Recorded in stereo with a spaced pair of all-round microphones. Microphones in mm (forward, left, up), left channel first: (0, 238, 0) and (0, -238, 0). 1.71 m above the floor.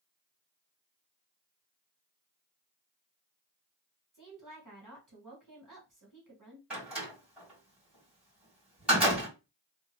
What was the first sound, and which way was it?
A woman speaking, 40° right (ahead or behind).